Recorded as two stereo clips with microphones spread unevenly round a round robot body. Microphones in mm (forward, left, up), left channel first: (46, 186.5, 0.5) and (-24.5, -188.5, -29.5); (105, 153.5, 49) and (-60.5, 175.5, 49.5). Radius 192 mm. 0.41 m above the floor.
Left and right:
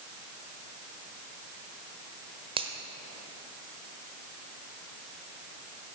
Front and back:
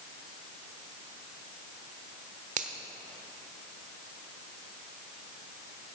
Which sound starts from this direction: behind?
A finger snap, at 2.6 s.